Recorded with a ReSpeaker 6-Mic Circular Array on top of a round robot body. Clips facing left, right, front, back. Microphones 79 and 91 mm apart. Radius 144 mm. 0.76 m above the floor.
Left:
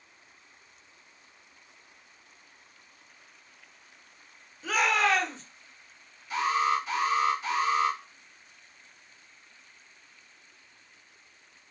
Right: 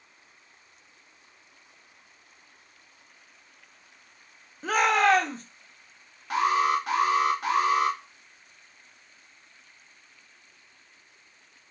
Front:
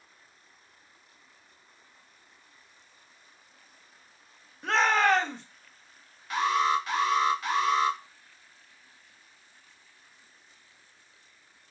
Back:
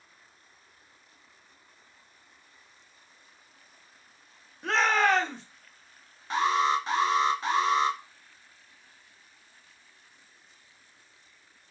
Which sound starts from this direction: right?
A shout, at 4.6 s.